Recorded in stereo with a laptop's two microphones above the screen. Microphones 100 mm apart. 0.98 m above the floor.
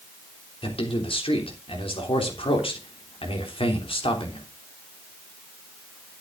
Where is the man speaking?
65° left (ahead or behind), 3 m.